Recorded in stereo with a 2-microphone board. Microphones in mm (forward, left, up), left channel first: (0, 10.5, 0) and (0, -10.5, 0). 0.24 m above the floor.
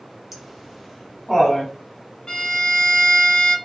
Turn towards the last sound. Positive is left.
turn(degrees=45)  # may be behind; listen again after turning